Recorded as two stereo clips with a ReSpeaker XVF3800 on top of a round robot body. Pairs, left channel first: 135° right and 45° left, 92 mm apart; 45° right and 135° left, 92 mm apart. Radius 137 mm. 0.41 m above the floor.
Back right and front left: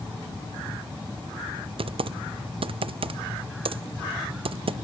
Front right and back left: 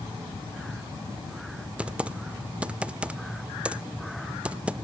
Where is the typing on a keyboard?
60° left, 0.5 m.